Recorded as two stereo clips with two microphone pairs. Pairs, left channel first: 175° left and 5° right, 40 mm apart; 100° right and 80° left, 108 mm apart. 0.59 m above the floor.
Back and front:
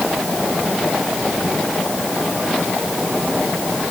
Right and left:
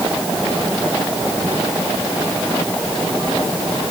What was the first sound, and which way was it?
Only background noise.